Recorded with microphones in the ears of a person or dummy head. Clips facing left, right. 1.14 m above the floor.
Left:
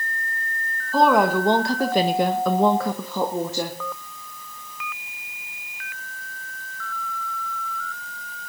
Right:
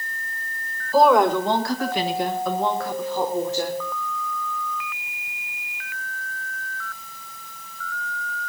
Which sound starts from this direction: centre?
A woman speaking, at 0.9 s.